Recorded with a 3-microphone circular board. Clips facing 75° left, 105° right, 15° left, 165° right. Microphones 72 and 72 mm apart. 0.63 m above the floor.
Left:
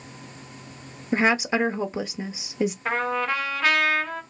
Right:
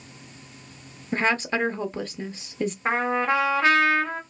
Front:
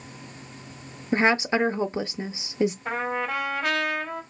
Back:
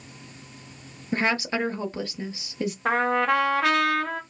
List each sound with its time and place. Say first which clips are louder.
1.1 s a woman speaking: left 3 dB, front 4 dB; 15° left, 0.5 m
2.9 s a trumpet: right 7 dB, back 6 dB; 165° right, 1.0 m